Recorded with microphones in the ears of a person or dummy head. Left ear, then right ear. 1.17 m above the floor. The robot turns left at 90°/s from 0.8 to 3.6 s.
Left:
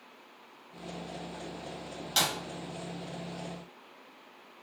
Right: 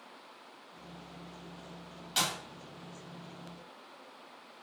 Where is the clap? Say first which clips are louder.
Left 3 dB; 20° left (ahead or behind), 1.4 m; by 2.4 s centre (ahead or behind), 1.4 m.